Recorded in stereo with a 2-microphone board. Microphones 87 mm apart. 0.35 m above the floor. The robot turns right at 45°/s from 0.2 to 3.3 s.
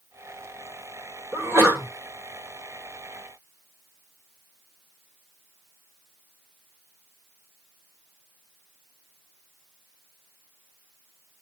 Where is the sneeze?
25° right (ahead or behind), 1.6 m; by 1.9 s 30° right (ahead or behind), 1.6 m.